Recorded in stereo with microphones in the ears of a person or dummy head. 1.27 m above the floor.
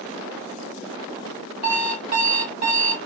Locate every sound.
1.6 s an alarm clock: 25° right (ahead or behind), 2.0 m